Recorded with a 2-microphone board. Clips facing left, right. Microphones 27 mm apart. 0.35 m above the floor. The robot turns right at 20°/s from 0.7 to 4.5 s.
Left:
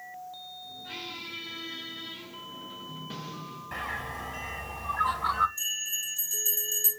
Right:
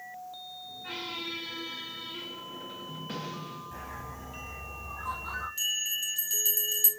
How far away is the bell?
About 1.4 m.